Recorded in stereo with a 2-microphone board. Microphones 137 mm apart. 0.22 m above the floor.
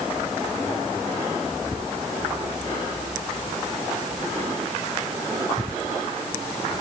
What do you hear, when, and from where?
Only background noise.